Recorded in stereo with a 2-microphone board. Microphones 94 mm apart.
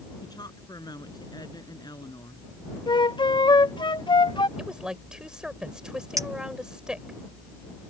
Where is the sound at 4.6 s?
10° right (ahead or behind).